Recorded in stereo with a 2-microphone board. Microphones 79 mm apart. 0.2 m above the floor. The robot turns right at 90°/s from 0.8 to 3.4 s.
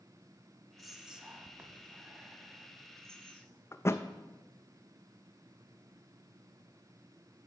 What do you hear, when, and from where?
0.8 s whispering: centre (ahead or behind), 1.3 m; by 3.6 s 20° left (ahead or behind), 1.3 m
3.7 s a thud: 35° left (ahead or behind), 0.6 m